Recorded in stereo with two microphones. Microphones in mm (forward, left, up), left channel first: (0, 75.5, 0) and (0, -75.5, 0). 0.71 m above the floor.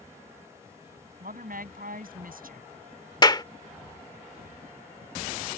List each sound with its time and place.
1.2 s a woman speaking: 70° right (ahead or behind)
3.2 s a clap: 30° left (ahead or behind)